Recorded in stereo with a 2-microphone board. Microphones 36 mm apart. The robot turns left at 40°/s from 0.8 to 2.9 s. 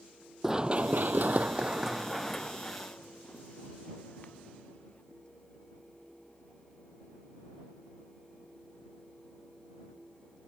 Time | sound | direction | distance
0.4 | running footsteps | 10° right (ahead or behind) | ?